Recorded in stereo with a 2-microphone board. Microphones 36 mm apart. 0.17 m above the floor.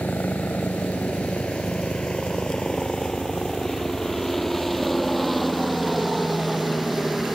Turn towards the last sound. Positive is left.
turn(degrees=-10)  # may be behind; listen again after turning